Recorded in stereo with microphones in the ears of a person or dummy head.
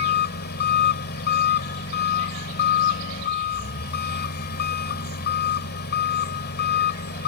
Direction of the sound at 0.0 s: 50° left (ahead or behind).